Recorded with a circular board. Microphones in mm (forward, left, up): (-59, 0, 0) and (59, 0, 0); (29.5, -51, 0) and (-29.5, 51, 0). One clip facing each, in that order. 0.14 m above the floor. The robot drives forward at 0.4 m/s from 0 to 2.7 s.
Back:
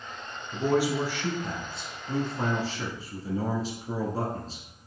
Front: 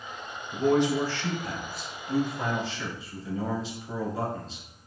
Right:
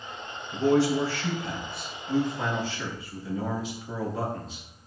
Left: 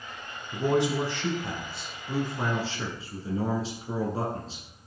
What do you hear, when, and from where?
0.5 s a man speaking: 90° left, 1.0 m; by 4.6 s 160° left, 1.3 m